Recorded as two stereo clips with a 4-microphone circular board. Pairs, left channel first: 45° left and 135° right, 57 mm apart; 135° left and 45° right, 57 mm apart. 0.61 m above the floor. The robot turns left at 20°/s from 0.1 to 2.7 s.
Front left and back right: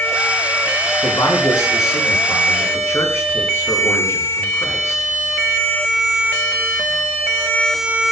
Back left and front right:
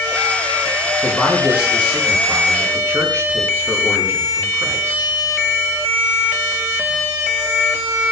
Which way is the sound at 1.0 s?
35° left.